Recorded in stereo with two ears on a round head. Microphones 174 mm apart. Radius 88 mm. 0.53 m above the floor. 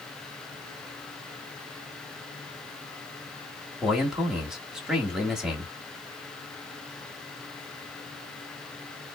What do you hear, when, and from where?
3.8 s a man speaking: 5° right (ahead or behind), 1.0 m